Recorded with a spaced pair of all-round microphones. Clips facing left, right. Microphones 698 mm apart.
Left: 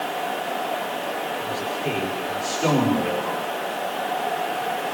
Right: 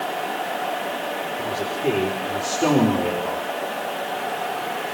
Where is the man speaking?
65° right (ahead or behind), 4.5 m.